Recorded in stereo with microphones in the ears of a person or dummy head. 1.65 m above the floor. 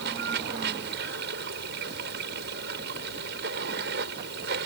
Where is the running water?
55° right (ahead or behind).